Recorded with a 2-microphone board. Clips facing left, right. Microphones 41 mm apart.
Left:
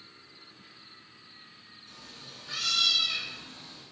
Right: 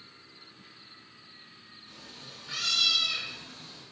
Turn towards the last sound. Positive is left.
turn(degrees=25)  # may be behind; listen again after turning